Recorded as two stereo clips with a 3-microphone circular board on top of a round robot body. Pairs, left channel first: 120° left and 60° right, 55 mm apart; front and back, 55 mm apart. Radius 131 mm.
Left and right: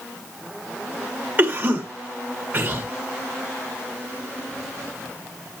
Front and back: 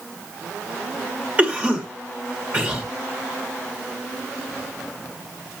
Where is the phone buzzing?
No phone buzzing in this recording.